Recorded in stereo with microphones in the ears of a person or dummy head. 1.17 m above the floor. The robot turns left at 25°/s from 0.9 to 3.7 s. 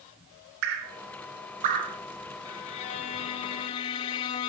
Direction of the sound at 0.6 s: 65° right (ahead or behind).